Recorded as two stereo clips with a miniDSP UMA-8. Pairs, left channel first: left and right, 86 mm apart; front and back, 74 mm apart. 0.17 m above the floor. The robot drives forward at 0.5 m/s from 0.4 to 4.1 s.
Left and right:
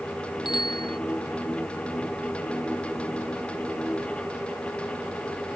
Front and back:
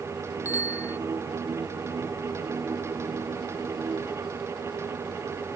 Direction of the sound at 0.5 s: 55° left.